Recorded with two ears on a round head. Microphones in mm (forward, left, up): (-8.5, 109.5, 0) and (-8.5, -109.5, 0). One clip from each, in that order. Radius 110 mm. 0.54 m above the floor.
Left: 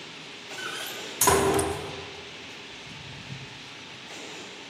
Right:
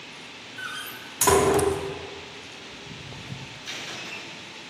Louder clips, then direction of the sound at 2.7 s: Right 1 dB; 45° right (ahead or behind).